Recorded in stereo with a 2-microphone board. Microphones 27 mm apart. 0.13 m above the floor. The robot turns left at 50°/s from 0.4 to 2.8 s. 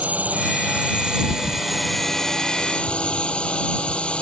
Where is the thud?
75° left (ahead or behind); by 1.7 s 60° left (ahead or behind).